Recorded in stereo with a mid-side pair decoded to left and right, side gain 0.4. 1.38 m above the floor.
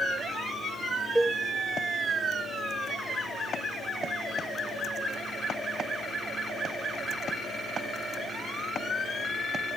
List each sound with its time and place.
1.1 s a cowbell: 15° right, 2.5 m